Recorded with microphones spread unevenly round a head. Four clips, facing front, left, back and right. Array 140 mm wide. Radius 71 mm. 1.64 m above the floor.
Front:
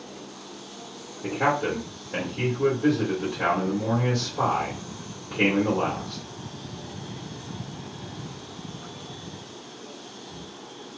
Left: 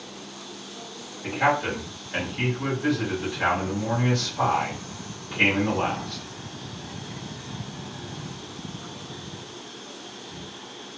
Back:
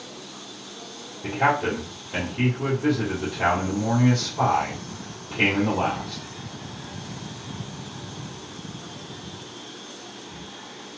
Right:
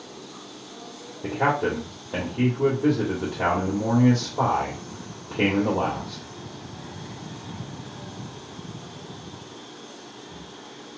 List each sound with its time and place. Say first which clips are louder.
1.2 s a man speaking: even, back 2 dB; 85° right, 1.5 m